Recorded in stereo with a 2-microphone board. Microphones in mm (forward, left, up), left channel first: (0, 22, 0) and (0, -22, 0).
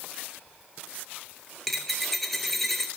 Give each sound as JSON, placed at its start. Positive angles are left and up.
{"t": 1.7, "sound": "a dropped coin", "side_deg": 5, "distance_m": 0.6}